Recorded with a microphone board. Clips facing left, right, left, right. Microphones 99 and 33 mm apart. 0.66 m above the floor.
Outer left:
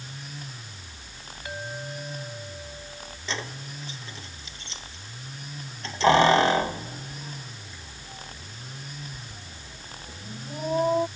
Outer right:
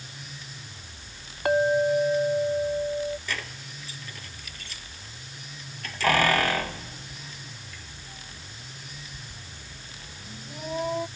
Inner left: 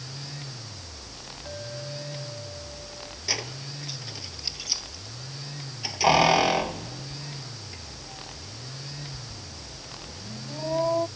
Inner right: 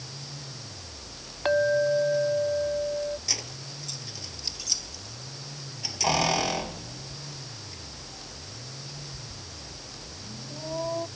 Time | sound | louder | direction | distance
1.4 | a clink | outer right 16 dB, inner right 17 dB | 65° right (ahead or behind) | ?
3.3 | keys jangling | outer left 2 dB, inner left 3 dB | 25° left (ahead or behind) | ?